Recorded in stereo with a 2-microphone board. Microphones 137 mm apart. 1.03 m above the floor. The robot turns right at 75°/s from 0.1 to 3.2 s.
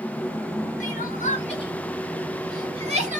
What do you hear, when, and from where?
0.8 s crying: 65° left (ahead or behind), 1.0 m; by 3.2 s 65° right (ahead or behind), 1.0 m